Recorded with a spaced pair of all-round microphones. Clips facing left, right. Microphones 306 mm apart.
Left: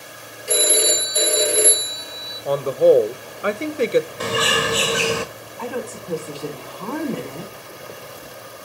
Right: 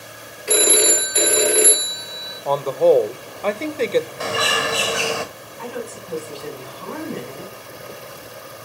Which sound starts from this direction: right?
A phone ringing, at 0.5 s.